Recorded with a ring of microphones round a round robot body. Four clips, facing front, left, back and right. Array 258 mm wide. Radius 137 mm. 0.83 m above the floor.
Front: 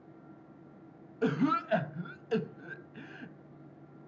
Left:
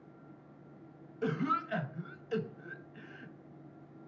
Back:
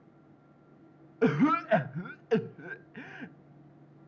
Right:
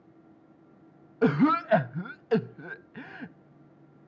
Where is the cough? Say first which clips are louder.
Right 10 dB, back 4 dB; 110° right, 1.0 m.